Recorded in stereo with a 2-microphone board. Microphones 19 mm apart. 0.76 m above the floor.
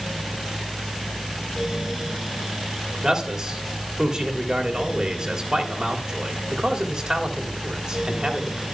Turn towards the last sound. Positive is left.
turn(degrees=-35)  # may be behind; listen again after turning